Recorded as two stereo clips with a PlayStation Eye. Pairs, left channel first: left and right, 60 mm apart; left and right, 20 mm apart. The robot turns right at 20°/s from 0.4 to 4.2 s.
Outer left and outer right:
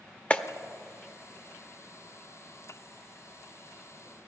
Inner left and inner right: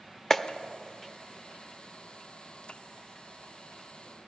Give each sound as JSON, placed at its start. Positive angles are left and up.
{"t": 0.3, "sound": "a clap", "side_deg": 20, "distance_m": 0.6}